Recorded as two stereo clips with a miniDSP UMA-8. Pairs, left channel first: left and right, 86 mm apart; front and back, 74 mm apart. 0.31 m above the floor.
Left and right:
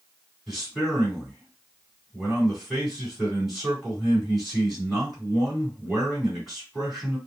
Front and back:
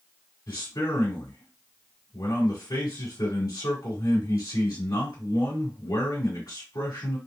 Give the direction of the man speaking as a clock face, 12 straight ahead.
12 o'clock.